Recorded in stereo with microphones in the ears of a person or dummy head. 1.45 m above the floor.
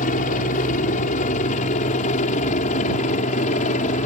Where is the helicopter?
40° left (ahead or behind).